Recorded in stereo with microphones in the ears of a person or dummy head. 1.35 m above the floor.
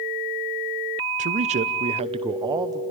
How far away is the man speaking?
About 0.5 m.